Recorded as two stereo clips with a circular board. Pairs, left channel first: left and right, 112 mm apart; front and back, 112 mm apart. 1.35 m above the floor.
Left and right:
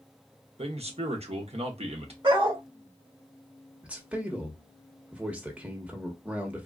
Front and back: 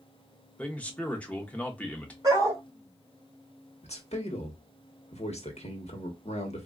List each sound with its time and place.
0.6 s a man speaking: 75° right, 0.9 m
2.2 s a dog barking: 125° right, 2 m
3.8 s a man speaking: 10° right, 1.0 m